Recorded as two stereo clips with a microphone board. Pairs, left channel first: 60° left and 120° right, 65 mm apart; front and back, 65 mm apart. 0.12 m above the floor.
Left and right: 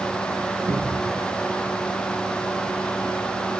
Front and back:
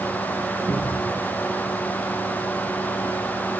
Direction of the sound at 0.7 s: 75° right.